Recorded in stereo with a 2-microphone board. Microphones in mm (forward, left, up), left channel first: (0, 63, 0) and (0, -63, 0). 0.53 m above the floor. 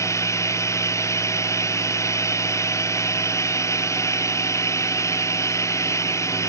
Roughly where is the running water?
Left.